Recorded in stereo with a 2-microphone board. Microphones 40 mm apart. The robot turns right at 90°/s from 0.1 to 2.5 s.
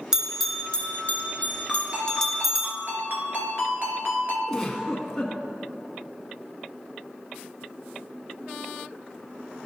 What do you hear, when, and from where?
0.1 s a bell: 15° right (ahead or behind), 0.9 m; by 2.7 s 10° right (ahead or behind), 0.9 m
1.7 s a ringtone: straight behind, 1.8 m; by 4.4 s 105° right, 1.8 m
4.5 s a giggle: 10° left (ahead or behind), 1.1 m